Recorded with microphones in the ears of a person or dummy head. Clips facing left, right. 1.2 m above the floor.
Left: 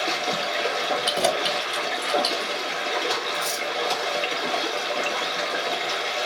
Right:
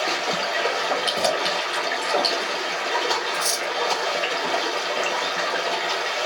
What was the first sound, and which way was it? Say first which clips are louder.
Running water: right 1 dB; 10° right (ahead or behind).